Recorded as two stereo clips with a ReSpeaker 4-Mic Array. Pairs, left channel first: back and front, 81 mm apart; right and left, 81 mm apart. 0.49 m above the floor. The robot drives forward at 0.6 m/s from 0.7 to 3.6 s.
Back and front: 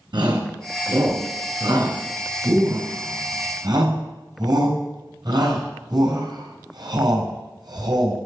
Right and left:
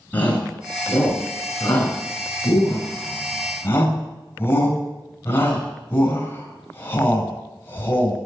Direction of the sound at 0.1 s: 20° right.